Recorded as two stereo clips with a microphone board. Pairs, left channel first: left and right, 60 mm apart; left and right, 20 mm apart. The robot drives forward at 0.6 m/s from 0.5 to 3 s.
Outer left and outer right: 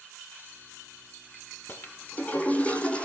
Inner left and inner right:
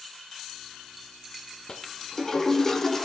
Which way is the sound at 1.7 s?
35° left (ahead or behind).